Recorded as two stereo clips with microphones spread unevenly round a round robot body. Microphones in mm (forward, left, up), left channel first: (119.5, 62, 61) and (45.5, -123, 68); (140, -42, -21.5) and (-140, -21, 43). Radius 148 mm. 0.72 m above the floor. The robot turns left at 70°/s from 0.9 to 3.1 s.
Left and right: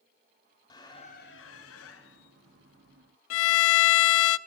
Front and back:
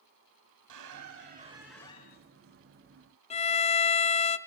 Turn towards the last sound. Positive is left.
turn(degrees=65)